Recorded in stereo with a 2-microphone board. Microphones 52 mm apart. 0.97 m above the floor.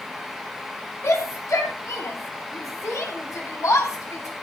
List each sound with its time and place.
1.0 s a shout: 65° left (ahead or behind), 2 m; by 4.3 s 80° left, 6.5 m